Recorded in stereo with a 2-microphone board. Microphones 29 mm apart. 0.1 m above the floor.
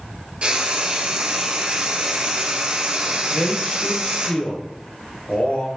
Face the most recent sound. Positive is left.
turn(degrees=50)  # may be behind; listen again after turning